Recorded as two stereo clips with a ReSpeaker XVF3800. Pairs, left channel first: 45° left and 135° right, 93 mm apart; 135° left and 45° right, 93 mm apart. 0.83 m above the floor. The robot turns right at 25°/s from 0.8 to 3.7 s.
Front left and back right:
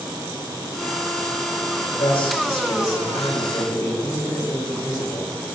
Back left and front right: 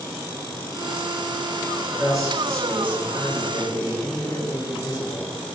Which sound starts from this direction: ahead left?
A man speaking, at 2.0 s.